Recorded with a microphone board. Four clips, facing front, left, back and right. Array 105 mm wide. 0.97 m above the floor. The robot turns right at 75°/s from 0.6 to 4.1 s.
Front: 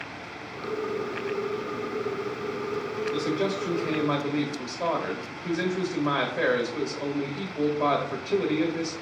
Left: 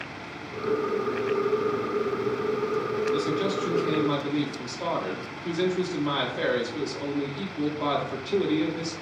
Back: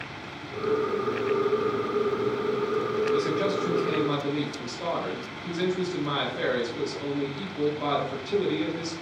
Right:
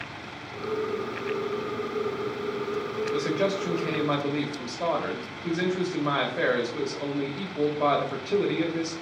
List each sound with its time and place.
3.1 s a man speaking: 130° right, 1.1 m; by 8.9 s 55° right, 1.1 m